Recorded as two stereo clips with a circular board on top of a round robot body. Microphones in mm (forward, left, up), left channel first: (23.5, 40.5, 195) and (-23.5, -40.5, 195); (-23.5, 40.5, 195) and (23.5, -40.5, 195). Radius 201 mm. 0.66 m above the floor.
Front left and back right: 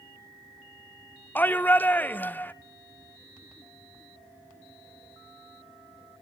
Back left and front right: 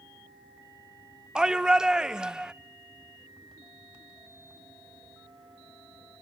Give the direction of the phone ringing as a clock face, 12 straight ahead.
I don't hear a phone ringing.